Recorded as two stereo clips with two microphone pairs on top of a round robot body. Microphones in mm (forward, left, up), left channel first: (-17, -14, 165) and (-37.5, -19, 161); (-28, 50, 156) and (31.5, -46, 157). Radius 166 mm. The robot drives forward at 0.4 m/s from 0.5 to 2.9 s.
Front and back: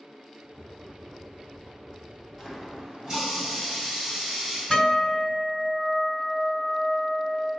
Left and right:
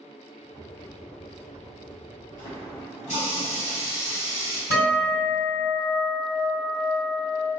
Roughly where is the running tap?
Behind left.